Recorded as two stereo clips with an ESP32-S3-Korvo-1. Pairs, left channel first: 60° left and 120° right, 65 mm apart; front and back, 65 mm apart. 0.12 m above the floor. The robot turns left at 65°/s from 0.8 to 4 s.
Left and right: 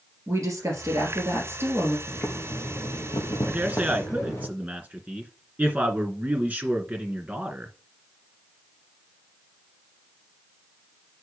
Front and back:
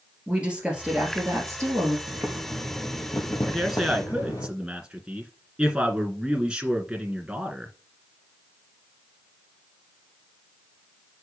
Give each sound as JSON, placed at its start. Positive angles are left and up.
{"t": 0.3, "sound": "a woman speaking", "azimuth_deg": -110, "distance_m": 2.5}
{"t": 2.1, "sound": "boiling", "azimuth_deg": 125, "distance_m": 2.5}
{"t": 3.5, "sound": "a man speaking", "azimuth_deg": -85, "distance_m": 1.8}